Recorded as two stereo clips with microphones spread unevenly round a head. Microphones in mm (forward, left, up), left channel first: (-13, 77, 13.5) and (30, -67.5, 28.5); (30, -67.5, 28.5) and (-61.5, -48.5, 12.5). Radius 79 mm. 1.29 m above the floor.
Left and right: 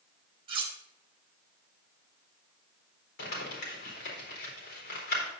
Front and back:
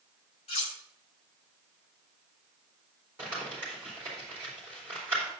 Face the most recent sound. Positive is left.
turn(degrees=90)